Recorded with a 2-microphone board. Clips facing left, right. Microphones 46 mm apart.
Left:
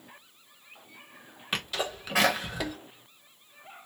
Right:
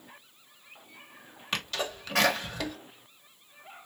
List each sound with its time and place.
1.5 s a sneeze: 10° left (ahead or behind), 0.9 m